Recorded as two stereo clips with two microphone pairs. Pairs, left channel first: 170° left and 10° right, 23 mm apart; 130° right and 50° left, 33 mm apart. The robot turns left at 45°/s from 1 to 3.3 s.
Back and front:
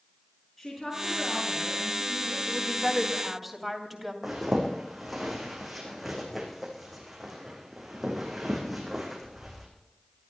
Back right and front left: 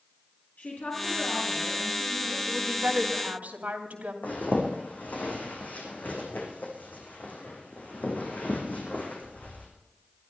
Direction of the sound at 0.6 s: 105° right.